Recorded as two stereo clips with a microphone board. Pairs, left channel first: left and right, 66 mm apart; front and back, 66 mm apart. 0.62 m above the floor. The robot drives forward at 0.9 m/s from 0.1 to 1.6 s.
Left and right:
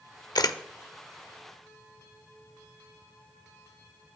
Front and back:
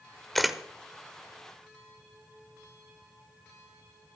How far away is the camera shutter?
About 0.8 m.